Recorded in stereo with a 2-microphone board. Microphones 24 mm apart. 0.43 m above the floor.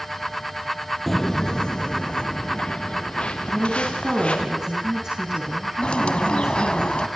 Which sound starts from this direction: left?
A bird, at 5.8 s.